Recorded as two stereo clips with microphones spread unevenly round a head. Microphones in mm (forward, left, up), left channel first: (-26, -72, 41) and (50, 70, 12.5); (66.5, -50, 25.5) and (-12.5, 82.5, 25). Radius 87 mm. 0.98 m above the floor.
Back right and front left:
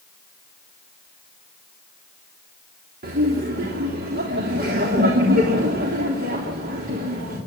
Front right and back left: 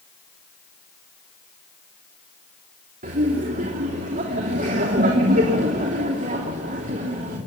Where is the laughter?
90° left, 3 m.